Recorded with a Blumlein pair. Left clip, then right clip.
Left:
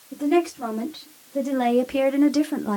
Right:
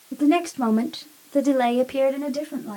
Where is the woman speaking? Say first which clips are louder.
Right 1 dB; 70° right, 1.1 m; by 2.8 s 35° left, 0.8 m.